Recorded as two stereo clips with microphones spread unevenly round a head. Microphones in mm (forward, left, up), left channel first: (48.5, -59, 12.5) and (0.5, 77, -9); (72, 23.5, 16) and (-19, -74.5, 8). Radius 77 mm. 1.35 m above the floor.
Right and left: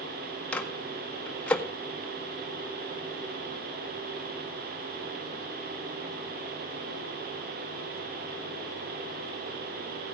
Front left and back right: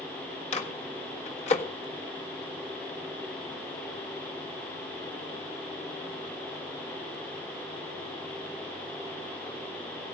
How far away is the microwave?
About 1.6 m.